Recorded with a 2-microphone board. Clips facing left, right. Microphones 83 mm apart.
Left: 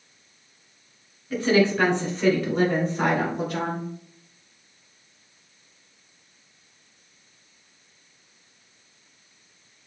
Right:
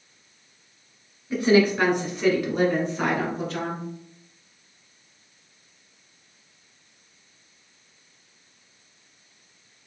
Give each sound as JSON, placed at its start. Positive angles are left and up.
{"t": 1.3, "sound": "a woman speaking", "side_deg": -15, "distance_m": 1.7}